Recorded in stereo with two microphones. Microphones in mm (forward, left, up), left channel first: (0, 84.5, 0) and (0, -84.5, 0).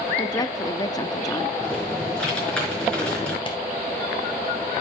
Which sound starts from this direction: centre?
Typing on a keyboard, at 1.6 s.